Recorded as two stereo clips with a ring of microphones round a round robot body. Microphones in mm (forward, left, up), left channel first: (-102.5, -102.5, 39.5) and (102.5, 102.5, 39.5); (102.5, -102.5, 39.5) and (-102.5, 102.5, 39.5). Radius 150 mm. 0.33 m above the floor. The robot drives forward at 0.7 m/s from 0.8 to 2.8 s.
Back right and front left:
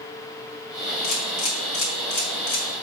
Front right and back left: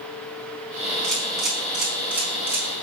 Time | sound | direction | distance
1.0 | a camera shutter | 130° right | 4 m